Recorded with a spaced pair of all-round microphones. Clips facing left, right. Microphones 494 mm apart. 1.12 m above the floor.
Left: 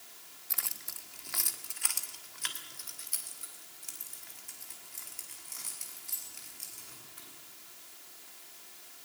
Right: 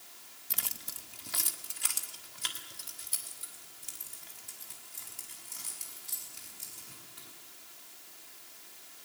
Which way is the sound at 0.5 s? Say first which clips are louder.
Right 4 dB; 50° right (ahead or behind).